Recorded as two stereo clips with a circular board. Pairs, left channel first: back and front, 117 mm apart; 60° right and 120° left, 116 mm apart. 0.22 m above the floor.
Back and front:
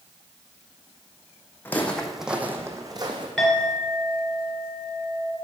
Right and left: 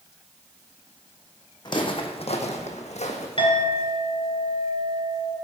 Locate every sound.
1.6 s footsteps: 110° right, 0.8 m; by 3.3 s 45° right, 0.9 m
3.4 s a clink: 95° right, 2 m